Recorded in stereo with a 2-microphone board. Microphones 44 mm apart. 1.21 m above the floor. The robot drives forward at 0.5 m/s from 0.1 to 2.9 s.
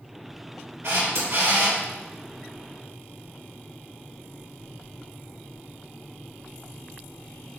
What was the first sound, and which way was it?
A camera shutter, 80° right.